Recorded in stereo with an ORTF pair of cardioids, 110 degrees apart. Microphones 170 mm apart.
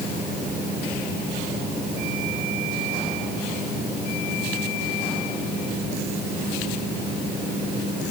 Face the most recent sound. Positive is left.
No sound to turn to.